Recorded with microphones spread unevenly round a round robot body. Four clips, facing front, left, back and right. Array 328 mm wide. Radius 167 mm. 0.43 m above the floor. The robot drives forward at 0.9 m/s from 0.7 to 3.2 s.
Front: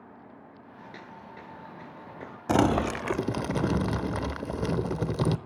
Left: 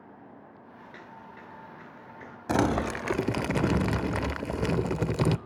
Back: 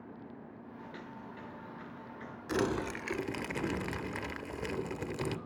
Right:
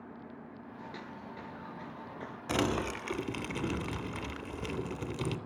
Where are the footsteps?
20° right, 4 m; by 2.4 s 10° right, 2.5 m.